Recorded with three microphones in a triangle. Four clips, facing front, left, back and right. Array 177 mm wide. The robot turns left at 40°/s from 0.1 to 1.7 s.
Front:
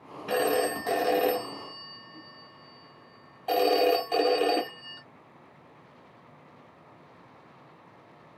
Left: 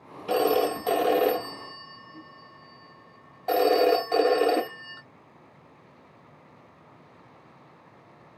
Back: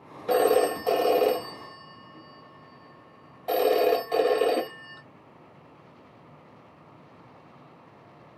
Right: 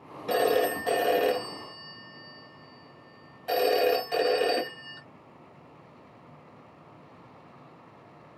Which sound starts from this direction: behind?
A phone ringing, at 0.3 s.